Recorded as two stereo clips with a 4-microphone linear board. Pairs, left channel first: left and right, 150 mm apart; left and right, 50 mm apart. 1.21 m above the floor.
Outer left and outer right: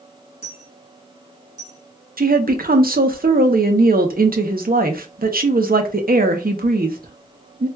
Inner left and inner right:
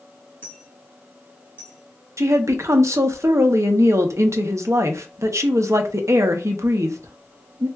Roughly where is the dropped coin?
Left.